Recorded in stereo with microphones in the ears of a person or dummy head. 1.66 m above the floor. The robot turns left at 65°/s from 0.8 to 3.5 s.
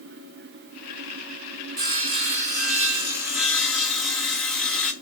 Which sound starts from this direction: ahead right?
Sawing, at 1.8 s.